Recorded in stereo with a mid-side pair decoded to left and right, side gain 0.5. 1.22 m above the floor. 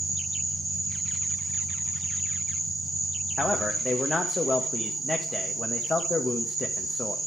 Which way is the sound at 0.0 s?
25° right.